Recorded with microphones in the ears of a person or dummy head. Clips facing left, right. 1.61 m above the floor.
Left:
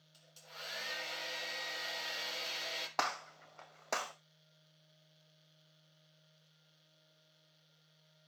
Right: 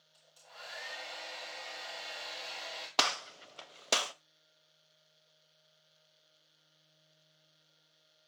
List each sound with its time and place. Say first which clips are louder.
0.1 s a hair dryer: even; 40° left (ahead or behind), 4 m
3.0 s a gunshot: right 3 dB; 50° right (ahead or behind), 0.8 m